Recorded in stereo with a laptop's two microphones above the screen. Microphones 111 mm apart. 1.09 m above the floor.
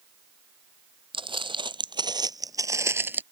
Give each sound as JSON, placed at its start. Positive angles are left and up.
{"t": 1.1, "sound": "footsteps", "side_deg": -50}